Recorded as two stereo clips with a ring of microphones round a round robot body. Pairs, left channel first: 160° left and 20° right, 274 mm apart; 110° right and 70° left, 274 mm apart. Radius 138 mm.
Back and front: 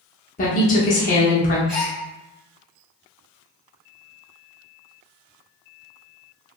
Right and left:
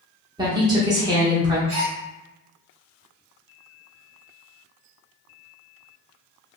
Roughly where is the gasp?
Ahead left.